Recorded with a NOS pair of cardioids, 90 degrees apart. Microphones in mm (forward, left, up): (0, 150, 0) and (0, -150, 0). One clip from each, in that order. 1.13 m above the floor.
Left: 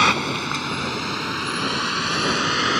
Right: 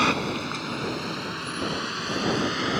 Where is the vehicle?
45° left; by 2.8 s 55° left.